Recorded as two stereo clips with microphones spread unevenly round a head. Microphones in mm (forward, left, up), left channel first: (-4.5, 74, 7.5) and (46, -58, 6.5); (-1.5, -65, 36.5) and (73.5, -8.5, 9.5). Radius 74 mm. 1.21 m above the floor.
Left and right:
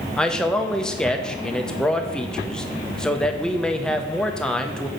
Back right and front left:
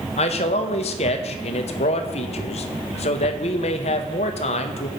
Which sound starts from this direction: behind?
A man speaking, at 0.2 s.